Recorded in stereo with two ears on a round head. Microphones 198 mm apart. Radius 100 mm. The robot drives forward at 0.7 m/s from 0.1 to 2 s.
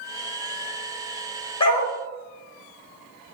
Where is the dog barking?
25° left (ahead or behind), 2.0 m.